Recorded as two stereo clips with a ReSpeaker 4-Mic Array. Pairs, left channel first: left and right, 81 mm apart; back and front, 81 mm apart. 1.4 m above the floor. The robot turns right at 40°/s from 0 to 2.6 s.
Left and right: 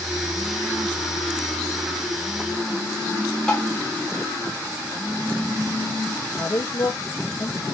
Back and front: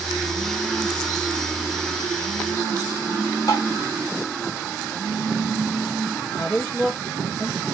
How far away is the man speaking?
About 0.6 m.